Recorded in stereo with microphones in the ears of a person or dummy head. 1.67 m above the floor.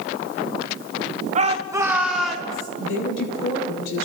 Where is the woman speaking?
90° left, 7.5 m.